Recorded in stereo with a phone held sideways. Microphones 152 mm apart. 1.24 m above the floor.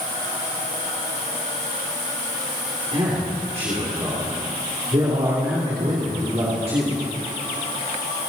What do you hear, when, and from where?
2.9 s a man speaking: 45° right (ahead or behind), 3 m